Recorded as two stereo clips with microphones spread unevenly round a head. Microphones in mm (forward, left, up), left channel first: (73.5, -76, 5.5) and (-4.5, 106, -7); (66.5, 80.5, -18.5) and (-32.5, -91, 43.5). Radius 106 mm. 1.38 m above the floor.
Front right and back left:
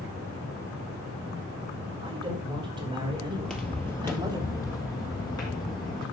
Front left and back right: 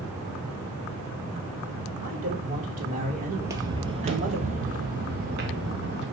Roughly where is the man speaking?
Behind.